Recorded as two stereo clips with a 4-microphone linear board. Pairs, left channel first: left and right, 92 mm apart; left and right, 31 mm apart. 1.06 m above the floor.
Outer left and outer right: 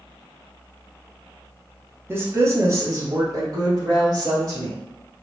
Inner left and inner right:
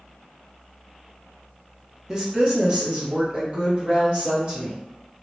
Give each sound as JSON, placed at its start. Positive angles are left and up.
{"t": 2.1, "sound": "a woman speaking", "side_deg": -25, "distance_m": 0.7}